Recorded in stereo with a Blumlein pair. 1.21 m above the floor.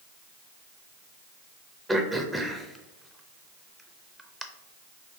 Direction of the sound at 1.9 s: Straight ahead.